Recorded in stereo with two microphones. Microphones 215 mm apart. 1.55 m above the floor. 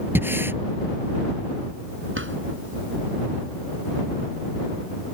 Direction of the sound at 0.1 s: 10° right (ahead or behind).